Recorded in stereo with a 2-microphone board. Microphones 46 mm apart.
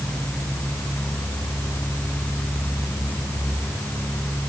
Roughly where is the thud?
I don't hear a thud.